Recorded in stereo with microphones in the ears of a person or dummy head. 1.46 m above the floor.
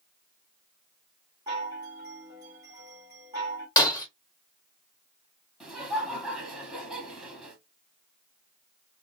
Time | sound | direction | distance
1.5 | a chime | 20° right (ahead or behind) | 1.3 m
3.8 | breaking glass | 20° left (ahead or behind) | 0.9 m
5.6 | laughter | centre (ahead or behind) | 0.8 m